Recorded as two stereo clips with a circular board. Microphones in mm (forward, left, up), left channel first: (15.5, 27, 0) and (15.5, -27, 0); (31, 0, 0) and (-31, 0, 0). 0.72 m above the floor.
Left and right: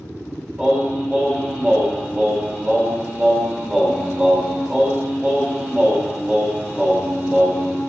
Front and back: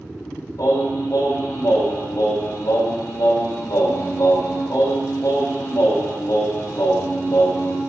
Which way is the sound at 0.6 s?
20° right.